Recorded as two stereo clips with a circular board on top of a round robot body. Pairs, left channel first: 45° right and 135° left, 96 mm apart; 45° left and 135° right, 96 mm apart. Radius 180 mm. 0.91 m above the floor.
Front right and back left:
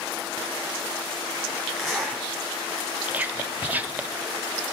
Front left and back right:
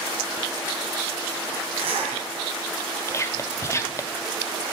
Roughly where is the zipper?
Behind right.